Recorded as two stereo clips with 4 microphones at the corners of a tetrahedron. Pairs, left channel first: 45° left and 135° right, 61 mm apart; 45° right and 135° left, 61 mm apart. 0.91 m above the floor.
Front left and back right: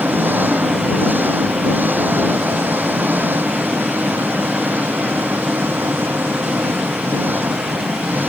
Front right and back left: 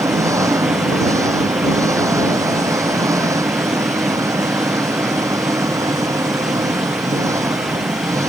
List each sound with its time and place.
0.0 s an engine running: 165° left